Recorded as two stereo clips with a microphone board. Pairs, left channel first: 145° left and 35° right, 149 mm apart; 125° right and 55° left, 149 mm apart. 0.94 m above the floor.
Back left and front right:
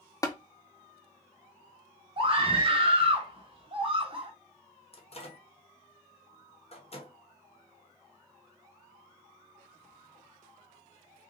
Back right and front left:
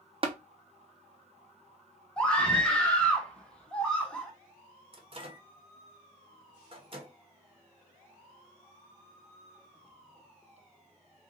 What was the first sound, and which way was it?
Tapping, 85° left.